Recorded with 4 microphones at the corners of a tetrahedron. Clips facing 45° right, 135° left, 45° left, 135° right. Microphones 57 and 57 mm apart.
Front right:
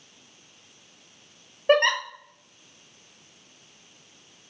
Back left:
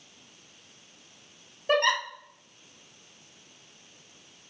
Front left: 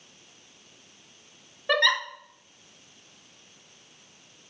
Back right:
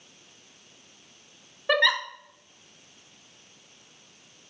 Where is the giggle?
60° right, 0.9 m.